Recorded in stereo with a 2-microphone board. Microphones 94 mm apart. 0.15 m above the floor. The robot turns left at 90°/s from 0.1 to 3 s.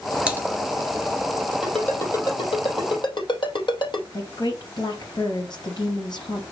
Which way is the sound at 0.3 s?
15° right (ahead or behind).